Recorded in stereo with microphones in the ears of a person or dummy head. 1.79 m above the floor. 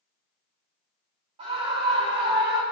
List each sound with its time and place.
1.4 s a scream: 35° right (ahead or behind), 5.5 m; by 2.6 s 25° right (ahead or behind), 5 m